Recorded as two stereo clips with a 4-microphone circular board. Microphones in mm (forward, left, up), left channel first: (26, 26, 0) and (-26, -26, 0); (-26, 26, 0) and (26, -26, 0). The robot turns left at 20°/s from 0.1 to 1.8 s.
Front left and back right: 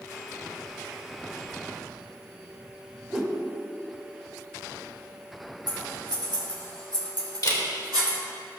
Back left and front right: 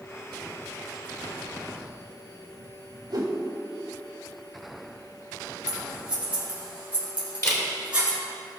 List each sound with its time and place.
3.1 s a whoosh: 60° right, 1.9 m
5.7 s scissors: 120° right, 4 m
7.4 s a camera shutter: 85° left, 2.5 m